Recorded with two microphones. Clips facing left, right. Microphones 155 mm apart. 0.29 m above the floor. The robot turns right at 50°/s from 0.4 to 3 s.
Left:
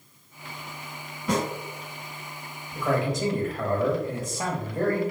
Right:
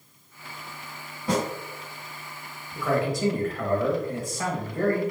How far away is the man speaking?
About 1.0 m.